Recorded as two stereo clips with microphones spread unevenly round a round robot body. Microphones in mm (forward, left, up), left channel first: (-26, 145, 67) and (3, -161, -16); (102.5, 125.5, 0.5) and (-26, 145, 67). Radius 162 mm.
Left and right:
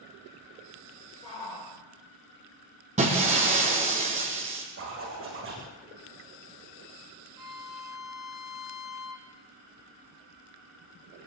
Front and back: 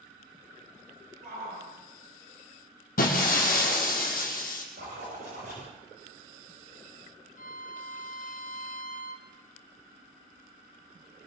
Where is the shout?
170° left, 6.5 m.